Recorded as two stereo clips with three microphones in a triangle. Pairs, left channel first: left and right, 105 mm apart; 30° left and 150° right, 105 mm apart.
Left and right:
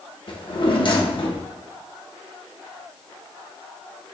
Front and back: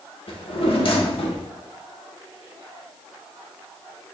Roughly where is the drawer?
Ahead left.